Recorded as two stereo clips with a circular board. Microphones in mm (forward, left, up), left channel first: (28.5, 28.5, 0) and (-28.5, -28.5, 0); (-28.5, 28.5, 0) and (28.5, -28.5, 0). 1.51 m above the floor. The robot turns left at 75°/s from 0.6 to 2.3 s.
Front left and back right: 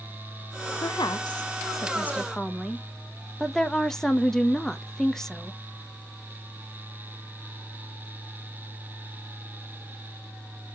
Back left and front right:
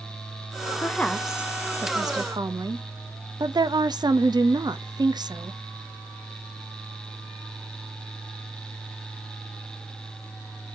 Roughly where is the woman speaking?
Left.